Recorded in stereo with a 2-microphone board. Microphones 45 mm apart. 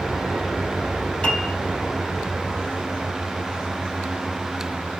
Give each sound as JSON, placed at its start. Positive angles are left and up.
{"t": 1.2, "sound": "a piano", "side_deg": 20, "distance_m": 2.5}